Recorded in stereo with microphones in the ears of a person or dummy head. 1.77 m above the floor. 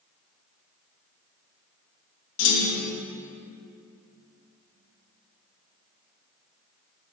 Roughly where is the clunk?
Left.